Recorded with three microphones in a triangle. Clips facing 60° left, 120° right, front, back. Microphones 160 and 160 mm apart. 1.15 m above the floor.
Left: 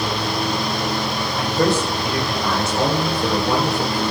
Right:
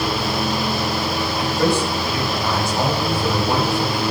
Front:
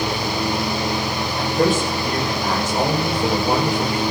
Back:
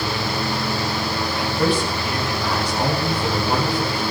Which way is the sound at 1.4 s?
45° left.